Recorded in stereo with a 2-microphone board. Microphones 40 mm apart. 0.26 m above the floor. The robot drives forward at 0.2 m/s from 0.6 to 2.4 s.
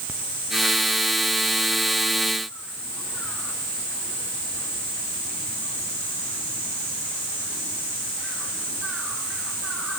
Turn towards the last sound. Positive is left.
No sound to turn to.